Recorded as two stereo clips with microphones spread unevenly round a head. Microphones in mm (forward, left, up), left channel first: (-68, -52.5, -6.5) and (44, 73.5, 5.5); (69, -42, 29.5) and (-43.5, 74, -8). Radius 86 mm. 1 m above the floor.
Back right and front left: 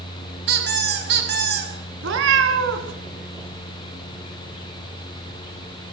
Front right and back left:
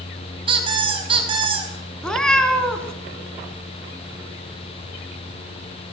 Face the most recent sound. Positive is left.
turn(degrees=35)